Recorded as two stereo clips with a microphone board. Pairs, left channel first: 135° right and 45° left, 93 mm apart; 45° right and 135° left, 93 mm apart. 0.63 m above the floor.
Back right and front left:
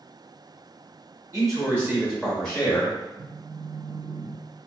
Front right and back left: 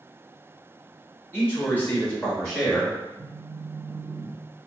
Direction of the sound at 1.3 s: 15° left.